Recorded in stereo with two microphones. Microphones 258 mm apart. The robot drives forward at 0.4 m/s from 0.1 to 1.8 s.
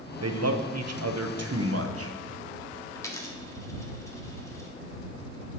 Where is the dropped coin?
10° left (ahead or behind), 0.9 m.